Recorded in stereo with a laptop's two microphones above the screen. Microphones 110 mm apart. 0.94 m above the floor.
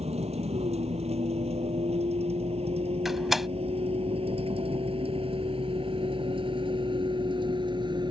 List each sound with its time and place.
0.0 s a vehicle: 75° right (ahead or behind); by 8.1 s 45° right (ahead or behind)
3.0 s a door slam: centre (ahead or behind)